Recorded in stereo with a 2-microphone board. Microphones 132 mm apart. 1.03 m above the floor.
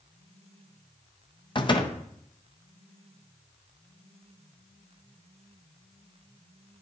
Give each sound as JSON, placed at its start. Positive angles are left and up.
{"t": 1.6, "sound": "a door slam", "side_deg": 40, "distance_m": 0.6}